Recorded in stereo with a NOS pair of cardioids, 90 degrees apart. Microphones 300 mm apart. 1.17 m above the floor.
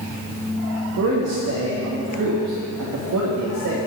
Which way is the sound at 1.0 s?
55° right.